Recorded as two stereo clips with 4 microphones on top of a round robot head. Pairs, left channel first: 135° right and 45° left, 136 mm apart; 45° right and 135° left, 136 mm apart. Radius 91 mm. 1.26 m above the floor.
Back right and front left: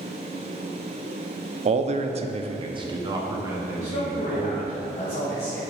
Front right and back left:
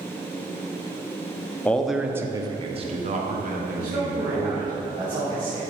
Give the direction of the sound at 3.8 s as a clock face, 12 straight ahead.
6 o'clock.